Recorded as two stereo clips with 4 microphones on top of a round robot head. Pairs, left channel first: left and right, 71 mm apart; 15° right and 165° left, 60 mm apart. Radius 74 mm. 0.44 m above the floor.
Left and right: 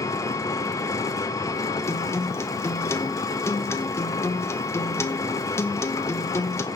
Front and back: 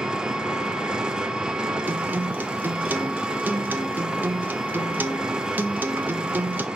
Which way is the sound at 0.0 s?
95° left.